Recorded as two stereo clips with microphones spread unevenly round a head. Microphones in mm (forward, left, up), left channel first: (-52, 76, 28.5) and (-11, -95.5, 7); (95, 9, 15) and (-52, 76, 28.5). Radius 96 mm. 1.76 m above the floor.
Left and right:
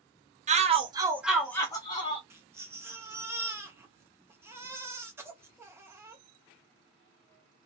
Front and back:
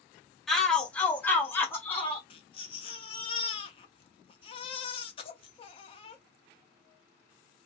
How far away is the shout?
About 0.7 m.